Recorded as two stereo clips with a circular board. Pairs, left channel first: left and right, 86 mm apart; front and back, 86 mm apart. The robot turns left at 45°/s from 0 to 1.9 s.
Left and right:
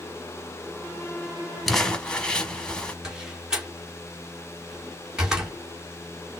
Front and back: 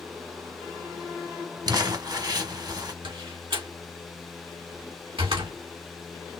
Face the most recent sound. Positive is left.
turn(degrees=-170)